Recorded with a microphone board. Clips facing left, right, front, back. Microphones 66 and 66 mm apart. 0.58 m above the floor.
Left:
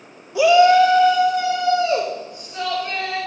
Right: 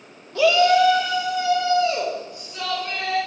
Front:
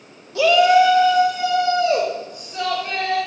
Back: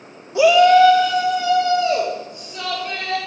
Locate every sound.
0.3 s a shout: 150° left, 0.8 m; by 3.2 s 35° left, 3.5 m